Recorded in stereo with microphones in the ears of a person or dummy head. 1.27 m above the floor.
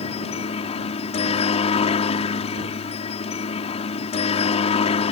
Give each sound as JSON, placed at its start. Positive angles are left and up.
{"t": 0.0, "sound": "a helicopter", "side_deg": 35}